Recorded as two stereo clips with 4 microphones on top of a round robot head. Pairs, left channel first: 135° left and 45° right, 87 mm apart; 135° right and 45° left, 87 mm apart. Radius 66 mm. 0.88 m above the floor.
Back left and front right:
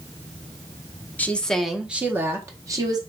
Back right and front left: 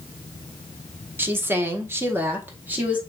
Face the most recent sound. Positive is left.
turn(degrees=-20)